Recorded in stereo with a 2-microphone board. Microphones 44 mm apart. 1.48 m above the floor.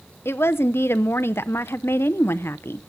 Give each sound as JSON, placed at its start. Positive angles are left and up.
{"t": 0.2, "sound": "a woman speaking", "side_deg": 60, "distance_m": 0.6}